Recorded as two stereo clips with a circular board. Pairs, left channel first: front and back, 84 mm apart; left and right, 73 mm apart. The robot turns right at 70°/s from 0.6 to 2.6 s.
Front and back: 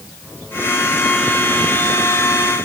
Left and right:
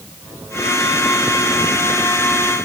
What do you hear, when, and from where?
Only background noise.